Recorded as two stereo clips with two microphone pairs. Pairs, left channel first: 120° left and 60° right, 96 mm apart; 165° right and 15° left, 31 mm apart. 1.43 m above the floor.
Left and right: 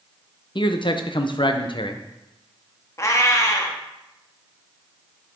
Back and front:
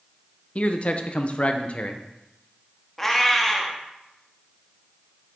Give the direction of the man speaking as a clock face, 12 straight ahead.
7 o'clock.